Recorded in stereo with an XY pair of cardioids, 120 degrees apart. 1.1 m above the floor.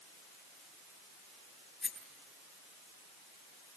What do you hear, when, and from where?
1.8 s a rattle: 20° left, 8 m